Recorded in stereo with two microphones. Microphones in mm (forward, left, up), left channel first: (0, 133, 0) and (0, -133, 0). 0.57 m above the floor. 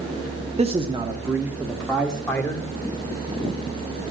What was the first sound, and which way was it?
A man speaking, 25° right (ahead or behind).